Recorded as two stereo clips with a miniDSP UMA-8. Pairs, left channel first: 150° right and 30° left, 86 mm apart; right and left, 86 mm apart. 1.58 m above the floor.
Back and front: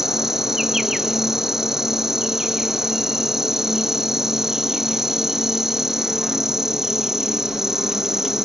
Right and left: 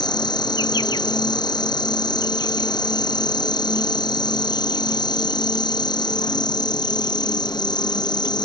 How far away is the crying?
I don't hear crying.